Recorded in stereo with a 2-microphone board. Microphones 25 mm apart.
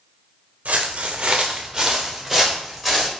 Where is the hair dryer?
I don't hear a hair dryer.